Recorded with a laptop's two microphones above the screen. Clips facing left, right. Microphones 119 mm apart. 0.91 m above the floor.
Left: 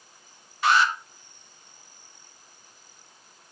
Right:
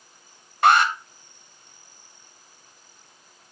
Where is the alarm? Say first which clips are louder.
Right 4 dB; 55° right (ahead or behind), 1.2 m.